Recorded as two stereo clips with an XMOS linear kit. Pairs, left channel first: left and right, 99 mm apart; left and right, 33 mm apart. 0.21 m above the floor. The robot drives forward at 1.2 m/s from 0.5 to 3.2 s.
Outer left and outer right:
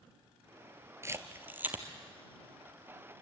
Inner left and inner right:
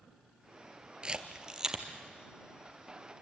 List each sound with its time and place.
1.0 s a camera shutter: 30° right (ahead or behind), 1.3 m; by 1.8 s 15° right (ahead or behind), 2 m